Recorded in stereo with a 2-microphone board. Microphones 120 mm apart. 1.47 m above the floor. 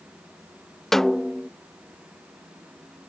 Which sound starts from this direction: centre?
A snare drum, at 0.9 s.